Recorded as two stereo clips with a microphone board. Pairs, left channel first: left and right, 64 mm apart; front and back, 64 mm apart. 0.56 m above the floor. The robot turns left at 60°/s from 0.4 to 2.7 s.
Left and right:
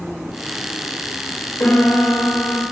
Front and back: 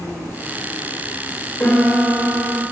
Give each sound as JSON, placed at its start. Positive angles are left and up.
{"t": 1.6, "sound": "a piano", "azimuth_deg": 50, "distance_m": 2.5}